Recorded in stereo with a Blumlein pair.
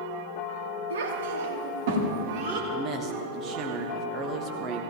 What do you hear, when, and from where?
0.9 s a child speaking: 65° right, 2.5 m; by 2.6 s 40° right, 3.5 m
2.7 s a man speaking: 30° right, 1.2 m